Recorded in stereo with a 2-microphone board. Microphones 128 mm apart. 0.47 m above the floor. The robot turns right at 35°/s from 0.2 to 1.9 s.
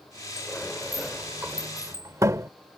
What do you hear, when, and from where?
0.4 s a sliding door: 20° left (ahead or behind); by 2.5 s 25° right (ahead or behind)